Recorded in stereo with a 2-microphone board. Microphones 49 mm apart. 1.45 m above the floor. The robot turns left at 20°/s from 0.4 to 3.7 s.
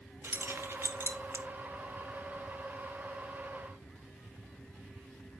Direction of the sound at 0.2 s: 50° right (ahead or behind).